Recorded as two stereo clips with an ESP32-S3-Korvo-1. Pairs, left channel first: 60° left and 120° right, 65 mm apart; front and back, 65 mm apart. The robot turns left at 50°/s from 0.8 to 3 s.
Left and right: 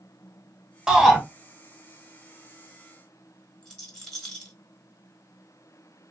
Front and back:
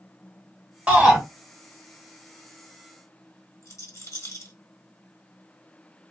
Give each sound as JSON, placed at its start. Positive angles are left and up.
{"t": 0.9, "sound": "a shout", "azimuth_deg": 175, "distance_m": 1.5}
{"t": 3.6, "sound": "a rattle", "azimuth_deg": -15, "distance_m": 1.5}